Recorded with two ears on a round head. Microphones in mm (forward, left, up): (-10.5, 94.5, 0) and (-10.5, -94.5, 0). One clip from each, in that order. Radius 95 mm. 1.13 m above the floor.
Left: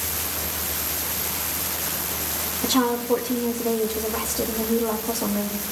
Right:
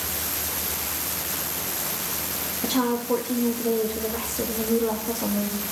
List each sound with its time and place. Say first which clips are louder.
2.6 s a woman speaking: left 3 dB; 10° left (ahead or behind), 0.8 m